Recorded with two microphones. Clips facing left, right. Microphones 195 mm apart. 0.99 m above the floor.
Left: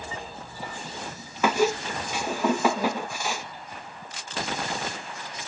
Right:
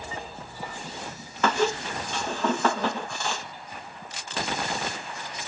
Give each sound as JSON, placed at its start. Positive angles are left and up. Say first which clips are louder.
{"t": 1.4, "sound": "a squeak", "louder": "left 2 dB", "side_deg": 10}